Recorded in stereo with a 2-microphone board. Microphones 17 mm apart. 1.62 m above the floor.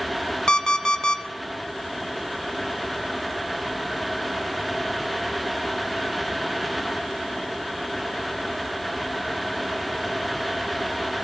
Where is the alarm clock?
55° left (ahead or behind), 1.4 m.